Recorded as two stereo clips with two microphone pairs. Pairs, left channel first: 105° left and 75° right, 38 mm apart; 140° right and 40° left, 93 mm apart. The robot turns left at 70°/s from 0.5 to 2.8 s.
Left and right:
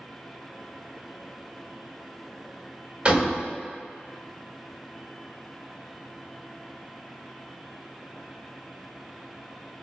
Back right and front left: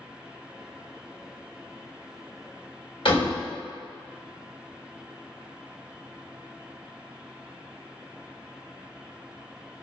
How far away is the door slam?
About 1.5 m.